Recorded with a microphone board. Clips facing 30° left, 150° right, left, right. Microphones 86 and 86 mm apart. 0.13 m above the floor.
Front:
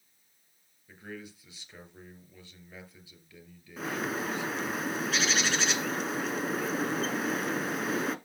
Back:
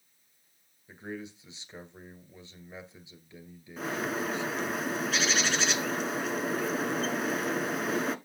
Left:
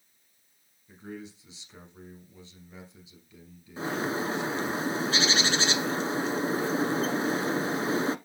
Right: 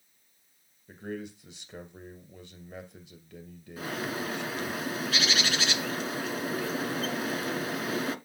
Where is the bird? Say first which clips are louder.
Back 1 dB, left 4 dB; 120° left, 0.8 m.